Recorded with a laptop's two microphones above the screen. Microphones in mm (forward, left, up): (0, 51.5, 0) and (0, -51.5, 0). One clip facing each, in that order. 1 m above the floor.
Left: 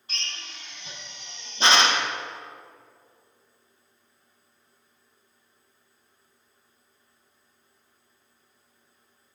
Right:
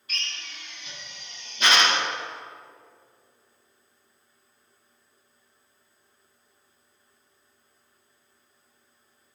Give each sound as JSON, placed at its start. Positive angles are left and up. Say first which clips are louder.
{"t": 0.1, "sound": "a drill", "louder": "right 1 dB", "side_deg": 30, "distance_m": 1.0}